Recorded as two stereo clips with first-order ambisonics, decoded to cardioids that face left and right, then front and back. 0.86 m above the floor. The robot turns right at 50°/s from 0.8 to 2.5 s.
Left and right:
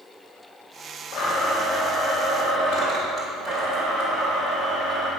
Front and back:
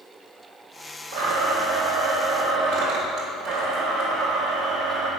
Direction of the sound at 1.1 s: 145° left.